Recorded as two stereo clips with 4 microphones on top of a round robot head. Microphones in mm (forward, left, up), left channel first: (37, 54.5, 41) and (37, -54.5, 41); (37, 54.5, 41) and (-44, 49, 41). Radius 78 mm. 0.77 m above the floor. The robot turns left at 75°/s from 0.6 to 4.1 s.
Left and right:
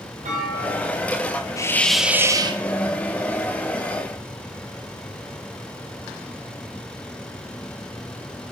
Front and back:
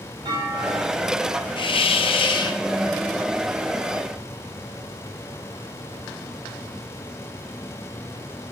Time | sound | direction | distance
0.2 | a clunk | 125° right | 5.5 m
1.6 | a hiss | 30° left | 0.8 m